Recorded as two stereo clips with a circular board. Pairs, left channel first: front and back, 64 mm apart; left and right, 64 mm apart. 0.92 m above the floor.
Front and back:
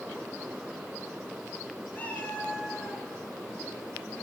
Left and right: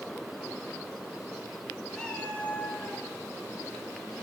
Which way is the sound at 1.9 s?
20° left.